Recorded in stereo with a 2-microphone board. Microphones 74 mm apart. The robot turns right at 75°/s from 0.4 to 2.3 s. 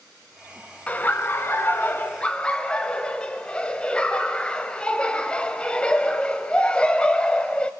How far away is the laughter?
About 1.1 m.